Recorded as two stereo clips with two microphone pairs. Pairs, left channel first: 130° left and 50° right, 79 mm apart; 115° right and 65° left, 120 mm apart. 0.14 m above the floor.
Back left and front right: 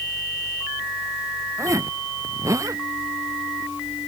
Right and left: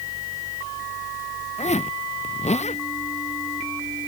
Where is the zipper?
95° right.